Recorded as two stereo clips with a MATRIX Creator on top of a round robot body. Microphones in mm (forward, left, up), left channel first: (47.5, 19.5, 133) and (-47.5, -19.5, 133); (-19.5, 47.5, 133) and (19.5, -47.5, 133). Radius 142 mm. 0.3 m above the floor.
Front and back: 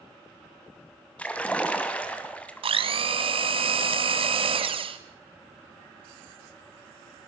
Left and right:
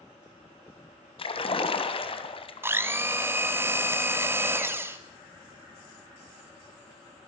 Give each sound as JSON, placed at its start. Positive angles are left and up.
{"t": 1.2, "sound": "a splash", "azimuth_deg": 100, "distance_m": 2.5}
{"t": 2.6, "sound": "a blender", "azimuth_deg": -135, "distance_m": 1.5}